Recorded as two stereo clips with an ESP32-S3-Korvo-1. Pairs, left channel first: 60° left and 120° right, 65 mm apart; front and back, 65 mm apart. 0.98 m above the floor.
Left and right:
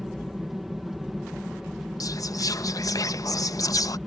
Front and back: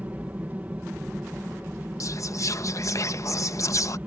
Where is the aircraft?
155° left.